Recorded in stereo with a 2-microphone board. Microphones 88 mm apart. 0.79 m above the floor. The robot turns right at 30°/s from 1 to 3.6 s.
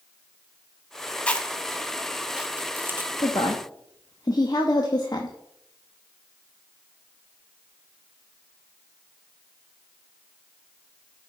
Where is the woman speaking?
55° left (ahead or behind), 0.7 m; by 5.4 s 50° left (ahead or behind), 0.7 m.